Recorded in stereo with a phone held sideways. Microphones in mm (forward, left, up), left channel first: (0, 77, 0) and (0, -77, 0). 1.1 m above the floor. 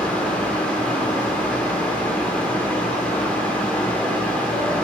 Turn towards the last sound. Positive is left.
turn(degrees=10)  # may be behind; listen again after turning